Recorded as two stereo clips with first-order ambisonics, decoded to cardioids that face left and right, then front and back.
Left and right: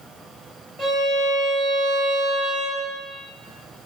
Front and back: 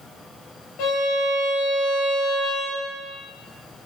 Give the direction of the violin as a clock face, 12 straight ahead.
12 o'clock.